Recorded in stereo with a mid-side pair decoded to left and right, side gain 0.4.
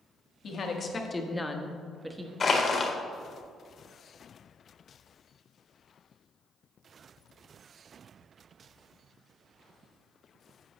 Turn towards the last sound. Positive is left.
turn(degrees=45)